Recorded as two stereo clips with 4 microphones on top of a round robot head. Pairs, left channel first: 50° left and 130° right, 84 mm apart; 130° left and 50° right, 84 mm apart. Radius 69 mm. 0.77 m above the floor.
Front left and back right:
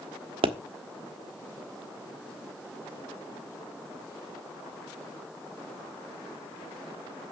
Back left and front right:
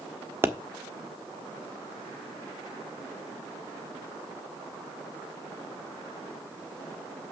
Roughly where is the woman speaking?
No woman speaking in this recording.